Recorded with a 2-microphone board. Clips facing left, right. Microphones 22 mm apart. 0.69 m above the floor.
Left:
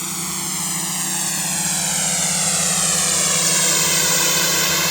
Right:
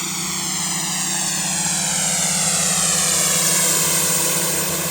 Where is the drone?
25° right (ahead or behind); by 4.9 s 55° left (ahead or behind).